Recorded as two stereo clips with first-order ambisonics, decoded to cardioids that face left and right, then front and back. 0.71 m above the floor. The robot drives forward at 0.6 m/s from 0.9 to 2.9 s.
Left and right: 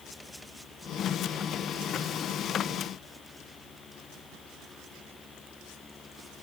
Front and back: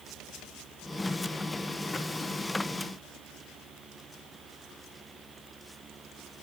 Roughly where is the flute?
No flute in this recording.